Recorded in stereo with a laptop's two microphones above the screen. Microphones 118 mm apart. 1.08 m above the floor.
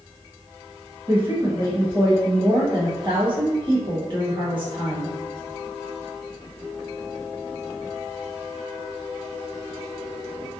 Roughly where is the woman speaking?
Right.